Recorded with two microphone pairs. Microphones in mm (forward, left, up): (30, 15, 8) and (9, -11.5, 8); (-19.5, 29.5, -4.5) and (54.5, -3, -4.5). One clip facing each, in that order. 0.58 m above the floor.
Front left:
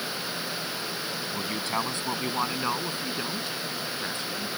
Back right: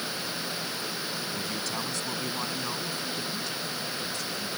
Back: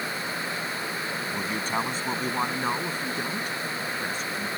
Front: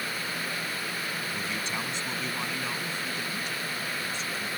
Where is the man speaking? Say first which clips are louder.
Front left 3 dB, back 5 dB; 110° left.